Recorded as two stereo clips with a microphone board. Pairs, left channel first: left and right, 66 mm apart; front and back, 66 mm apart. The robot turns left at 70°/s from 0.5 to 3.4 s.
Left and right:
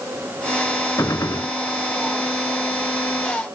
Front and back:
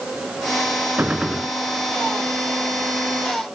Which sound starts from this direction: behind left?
A gunshot, at 1.0 s.